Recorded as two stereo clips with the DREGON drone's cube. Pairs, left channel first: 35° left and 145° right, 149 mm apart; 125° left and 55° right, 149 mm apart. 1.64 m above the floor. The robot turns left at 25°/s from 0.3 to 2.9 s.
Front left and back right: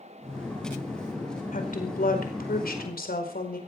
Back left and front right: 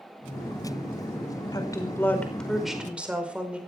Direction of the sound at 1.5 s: 60° left.